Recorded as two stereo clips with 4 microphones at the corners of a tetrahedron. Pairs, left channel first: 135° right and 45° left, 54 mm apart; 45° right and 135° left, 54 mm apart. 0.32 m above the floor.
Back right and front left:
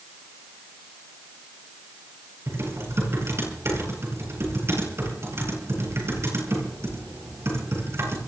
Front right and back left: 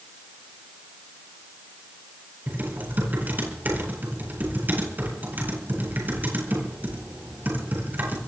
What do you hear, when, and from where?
2.5 s typing on a keyboard: 80° left, 8.5 m